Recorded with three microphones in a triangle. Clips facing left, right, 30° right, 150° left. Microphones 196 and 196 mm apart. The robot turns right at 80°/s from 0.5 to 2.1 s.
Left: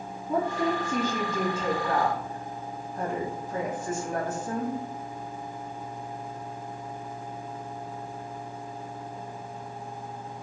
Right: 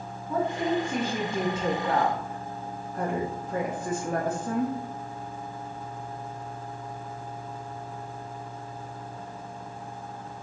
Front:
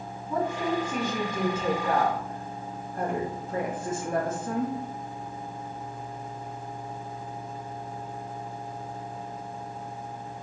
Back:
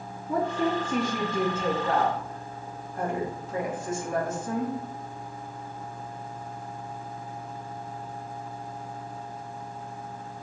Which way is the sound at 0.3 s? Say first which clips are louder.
Even, back 2 dB; 145° left.